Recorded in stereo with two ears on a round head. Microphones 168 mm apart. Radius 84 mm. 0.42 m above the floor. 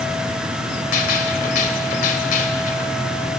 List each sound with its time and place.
0.9 s a gunshot: 45° left (ahead or behind), 2.5 m